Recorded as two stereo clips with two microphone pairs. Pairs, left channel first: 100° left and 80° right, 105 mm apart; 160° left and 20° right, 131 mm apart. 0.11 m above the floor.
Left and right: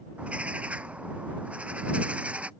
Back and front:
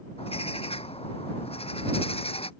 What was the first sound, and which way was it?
A bird, 160° right.